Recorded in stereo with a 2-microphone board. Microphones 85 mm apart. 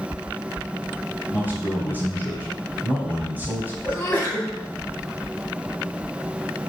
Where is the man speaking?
20° right (ahead or behind), 4 m.